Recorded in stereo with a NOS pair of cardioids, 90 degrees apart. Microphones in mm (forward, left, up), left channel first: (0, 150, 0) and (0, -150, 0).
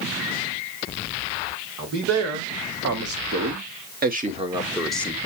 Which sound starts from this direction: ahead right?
A man speaking, at 1.8 s.